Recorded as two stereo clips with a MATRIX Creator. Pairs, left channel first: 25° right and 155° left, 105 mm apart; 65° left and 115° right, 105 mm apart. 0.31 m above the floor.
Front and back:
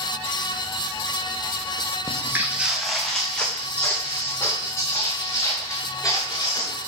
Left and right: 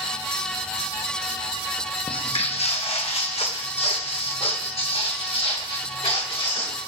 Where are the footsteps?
100° left, 0.8 m; by 6.8 s 30° left, 3 m.